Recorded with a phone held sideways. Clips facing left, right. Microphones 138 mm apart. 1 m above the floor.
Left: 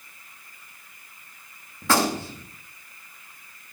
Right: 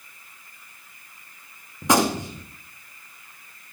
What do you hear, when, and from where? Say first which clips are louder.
1.8 s a gunshot: right 2 dB; 20° right (ahead or behind), 0.8 m